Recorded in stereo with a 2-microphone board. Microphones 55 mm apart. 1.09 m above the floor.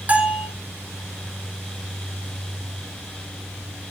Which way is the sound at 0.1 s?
30° right (ahead or behind).